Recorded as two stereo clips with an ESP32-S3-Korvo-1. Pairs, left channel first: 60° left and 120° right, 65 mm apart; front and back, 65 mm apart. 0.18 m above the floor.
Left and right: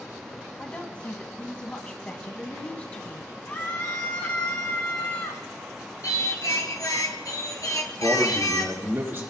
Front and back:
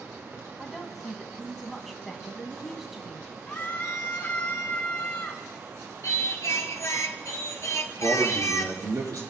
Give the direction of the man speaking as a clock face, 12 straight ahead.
6 o'clock.